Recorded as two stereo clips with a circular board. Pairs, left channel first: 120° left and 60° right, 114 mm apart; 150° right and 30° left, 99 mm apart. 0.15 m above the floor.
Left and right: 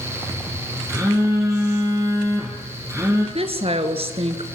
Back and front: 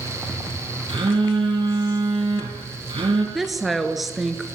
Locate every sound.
0.9 s a phone buzzing: straight ahead, 5.5 m
3.4 s a woman speaking: 60° right, 2 m